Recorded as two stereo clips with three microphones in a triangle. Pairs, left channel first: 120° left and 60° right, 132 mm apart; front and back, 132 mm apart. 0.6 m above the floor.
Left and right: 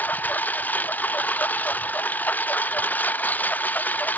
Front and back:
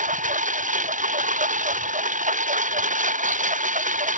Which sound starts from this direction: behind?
A lawn mower, at 0.0 s.